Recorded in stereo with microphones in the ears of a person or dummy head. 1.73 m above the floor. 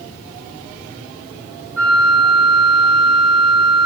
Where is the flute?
Centre (ahead or behind), 5.5 m.